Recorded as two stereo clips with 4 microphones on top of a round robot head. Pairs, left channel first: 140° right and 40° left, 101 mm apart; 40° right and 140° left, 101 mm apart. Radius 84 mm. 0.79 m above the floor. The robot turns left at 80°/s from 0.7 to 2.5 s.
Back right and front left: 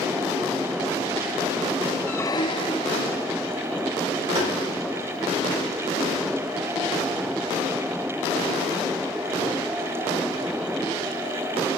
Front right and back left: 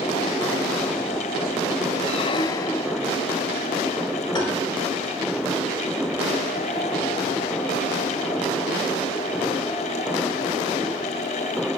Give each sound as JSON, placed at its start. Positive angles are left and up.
{"t": 2.1, "sound": "a squeak", "azimuth_deg": -65, "distance_m": 0.6}
{"t": 4.3, "sound": "tapping", "azimuth_deg": 5, "distance_m": 8.0}